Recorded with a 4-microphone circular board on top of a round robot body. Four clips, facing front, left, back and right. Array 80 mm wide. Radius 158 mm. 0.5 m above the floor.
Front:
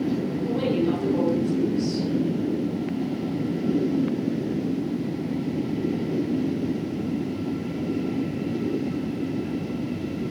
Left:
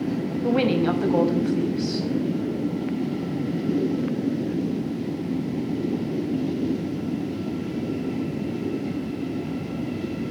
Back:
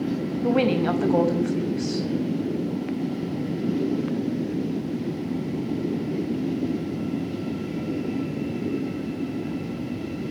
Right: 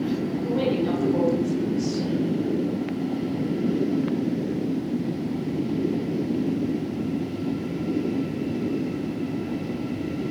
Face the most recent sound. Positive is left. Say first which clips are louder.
# left 4 dB, back 3 dB
turn(degrees=150)